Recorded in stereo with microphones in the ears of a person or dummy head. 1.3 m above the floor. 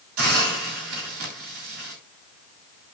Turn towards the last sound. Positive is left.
turn(degrees=-85)